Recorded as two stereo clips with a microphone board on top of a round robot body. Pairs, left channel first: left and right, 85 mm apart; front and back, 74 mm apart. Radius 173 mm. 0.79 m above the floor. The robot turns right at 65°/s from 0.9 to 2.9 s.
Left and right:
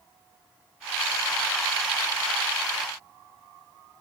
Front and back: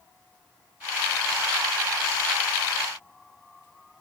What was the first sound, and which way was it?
Only background noise.